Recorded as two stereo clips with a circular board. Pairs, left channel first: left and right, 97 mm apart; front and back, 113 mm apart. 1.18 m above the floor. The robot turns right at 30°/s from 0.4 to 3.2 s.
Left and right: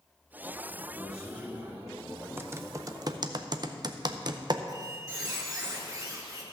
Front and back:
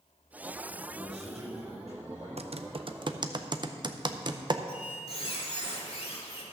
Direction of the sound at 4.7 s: 35° right.